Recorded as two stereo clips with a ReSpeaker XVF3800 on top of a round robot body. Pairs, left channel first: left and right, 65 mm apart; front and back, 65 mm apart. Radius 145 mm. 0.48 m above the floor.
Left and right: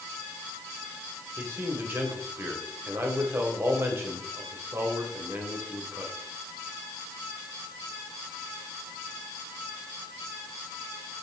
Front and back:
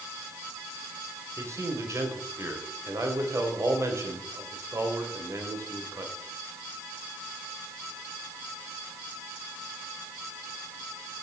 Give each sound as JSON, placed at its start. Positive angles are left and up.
{"t": 1.4, "sound": "a man speaking", "azimuth_deg": -140, "distance_m": 3.0}